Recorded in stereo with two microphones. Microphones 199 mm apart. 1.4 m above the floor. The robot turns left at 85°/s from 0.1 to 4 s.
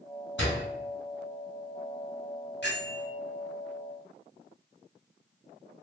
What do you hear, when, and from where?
0.4 s a door slam: 65° left (ahead or behind), 1.5 m
2.6 s a bell: 105° left, 1.4 m; by 3.1 s 65° left, 1.4 m